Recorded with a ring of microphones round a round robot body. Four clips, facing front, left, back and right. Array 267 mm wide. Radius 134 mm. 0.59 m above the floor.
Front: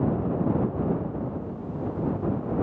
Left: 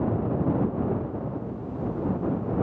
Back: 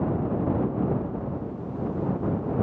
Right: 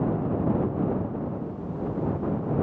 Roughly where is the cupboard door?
I don't hear a cupboard door.